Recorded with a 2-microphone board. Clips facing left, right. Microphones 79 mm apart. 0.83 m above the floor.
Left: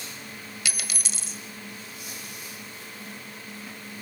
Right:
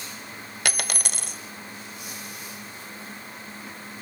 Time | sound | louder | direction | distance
0.7 | a dropped coin | right 8 dB | 60° right (ahead or behind) | 1.1 m